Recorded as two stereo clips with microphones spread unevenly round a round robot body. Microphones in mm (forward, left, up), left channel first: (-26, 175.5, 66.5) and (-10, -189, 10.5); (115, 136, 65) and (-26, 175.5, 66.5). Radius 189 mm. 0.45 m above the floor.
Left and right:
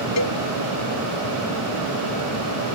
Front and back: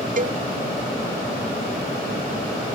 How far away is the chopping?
I don't hear chopping.